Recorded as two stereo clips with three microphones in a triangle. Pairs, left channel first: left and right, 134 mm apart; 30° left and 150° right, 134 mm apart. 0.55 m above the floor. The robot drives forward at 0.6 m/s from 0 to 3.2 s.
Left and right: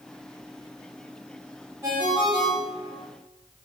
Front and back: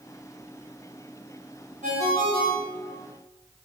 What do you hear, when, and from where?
1.8 s a ringtone: 165° right, 1.8 m; by 3.0 s 170° right, 2.5 m